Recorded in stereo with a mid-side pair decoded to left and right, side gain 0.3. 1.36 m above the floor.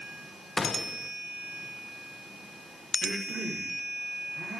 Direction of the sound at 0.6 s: 40° left.